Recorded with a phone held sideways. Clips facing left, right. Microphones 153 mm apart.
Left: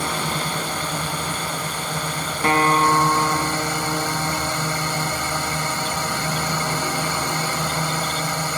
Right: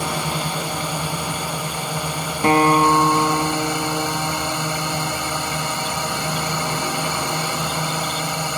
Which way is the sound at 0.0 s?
10° right (ahead or behind).